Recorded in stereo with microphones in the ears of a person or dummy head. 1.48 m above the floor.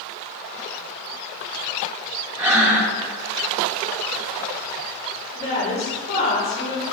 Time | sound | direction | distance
2.4 | breathing | 10° right (ahead or behind) | 1.4 m
5.3 | a woman speaking | 50° left (ahead or behind) | 1.6 m